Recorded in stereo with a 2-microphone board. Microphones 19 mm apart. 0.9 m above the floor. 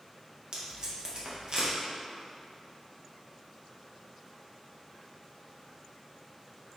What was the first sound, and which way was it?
Tape being pulled, 40° right (ahead or behind).